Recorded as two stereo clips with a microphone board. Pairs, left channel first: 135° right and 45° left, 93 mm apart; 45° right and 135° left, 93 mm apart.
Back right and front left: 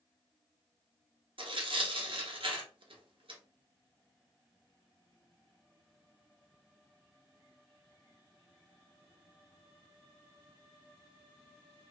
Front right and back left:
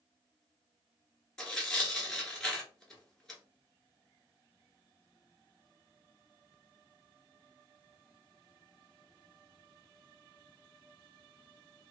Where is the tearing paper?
40° left, 0.9 m.